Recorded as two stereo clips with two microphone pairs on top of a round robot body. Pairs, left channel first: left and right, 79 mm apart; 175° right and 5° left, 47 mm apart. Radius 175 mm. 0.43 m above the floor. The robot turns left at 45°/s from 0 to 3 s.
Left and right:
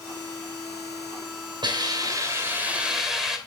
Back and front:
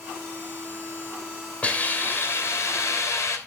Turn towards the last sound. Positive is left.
turn(degrees=180)